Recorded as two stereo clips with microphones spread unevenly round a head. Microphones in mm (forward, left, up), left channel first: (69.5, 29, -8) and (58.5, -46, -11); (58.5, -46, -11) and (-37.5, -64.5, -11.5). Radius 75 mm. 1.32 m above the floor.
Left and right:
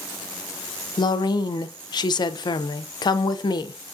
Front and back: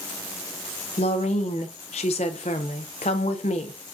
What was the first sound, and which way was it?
A woman speaking, 55° left.